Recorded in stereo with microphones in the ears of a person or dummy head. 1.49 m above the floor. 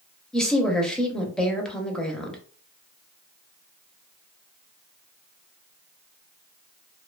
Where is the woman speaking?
5° left (ahead or behind), 0.6 m.